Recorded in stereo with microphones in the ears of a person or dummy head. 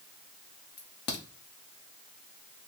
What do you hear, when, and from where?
0.8 s a crack: 25° left (ahead or behind), 0.6 m